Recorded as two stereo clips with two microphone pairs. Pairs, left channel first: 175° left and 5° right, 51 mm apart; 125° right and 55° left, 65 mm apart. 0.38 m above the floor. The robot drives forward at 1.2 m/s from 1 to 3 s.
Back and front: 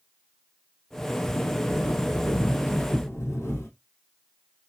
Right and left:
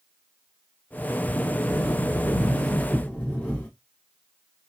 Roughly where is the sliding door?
Behind left.